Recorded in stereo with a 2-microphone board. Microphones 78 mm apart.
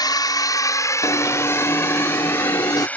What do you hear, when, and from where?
0.0 s a drone: 60° left (ahead or behind); by 3.0 s 20° left (ahead or behind)
1.0 s an alarm: 55° left (ahead or behind)